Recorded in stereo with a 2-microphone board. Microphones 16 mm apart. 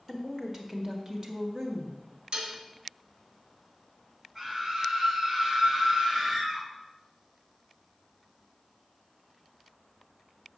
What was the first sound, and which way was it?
A woman speaking, 25° right (ahead or behind).